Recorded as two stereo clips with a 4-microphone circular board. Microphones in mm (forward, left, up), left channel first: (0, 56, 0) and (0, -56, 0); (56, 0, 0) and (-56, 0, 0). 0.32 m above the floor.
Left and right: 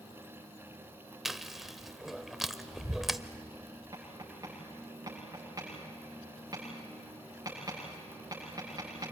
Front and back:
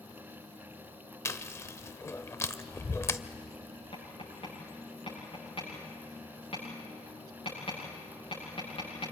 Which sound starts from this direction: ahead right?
Tapping, at 3.9 s.